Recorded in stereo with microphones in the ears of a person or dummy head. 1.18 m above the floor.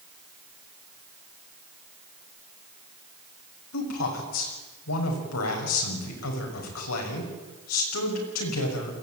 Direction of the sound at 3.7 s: 85° left.